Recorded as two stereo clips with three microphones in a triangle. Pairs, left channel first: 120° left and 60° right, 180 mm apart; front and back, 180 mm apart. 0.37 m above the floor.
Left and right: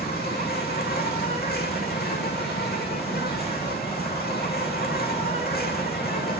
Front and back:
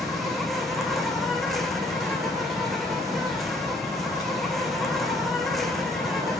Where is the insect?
90° left, 4.5 m.